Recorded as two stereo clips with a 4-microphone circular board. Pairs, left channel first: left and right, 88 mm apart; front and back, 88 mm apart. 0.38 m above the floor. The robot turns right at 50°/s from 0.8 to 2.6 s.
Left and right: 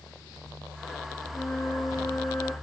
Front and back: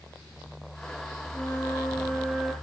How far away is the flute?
About 5.5 m.